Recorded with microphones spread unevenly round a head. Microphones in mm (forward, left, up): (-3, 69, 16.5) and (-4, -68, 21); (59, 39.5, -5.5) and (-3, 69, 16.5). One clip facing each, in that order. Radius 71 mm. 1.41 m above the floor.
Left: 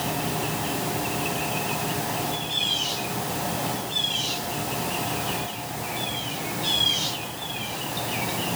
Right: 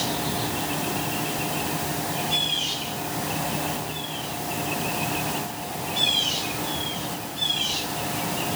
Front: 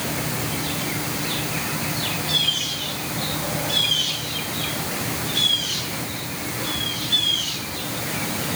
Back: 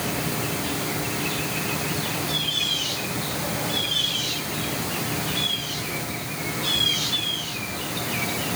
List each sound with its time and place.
Only background noise.